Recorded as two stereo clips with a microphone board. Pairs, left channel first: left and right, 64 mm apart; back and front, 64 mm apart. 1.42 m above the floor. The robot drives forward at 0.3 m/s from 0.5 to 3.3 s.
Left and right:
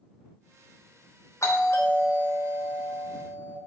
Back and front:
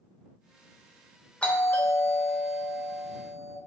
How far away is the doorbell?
About 0.7 m.